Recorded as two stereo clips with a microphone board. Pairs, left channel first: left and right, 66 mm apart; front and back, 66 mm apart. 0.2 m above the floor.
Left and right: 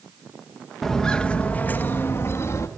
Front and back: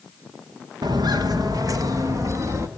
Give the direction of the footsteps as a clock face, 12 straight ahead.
6 o'clock.